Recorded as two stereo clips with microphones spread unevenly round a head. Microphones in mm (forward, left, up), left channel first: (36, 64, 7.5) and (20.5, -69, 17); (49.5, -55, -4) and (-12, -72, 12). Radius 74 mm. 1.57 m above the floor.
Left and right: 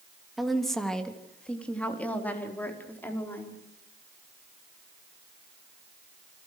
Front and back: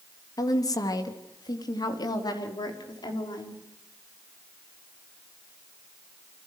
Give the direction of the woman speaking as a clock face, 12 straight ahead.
12 o'clock.